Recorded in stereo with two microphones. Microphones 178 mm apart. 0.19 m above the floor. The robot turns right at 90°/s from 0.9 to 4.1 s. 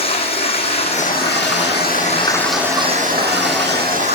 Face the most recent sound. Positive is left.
turn(degrees=-40)